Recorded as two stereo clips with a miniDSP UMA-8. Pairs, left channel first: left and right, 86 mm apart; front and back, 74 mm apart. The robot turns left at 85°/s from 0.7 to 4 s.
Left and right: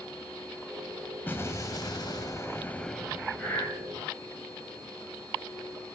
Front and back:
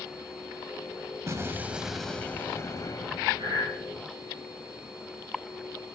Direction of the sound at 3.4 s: 175° left.